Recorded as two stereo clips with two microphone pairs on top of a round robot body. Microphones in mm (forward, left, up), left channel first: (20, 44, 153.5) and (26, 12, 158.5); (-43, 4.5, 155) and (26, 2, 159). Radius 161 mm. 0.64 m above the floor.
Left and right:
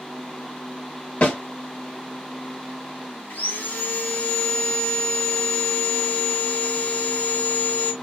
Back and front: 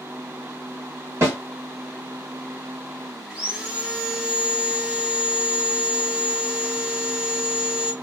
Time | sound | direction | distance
1.2 | a snare drum | 50° left | 1.7 m
3.3 | sawing | 70° left | 0.6 m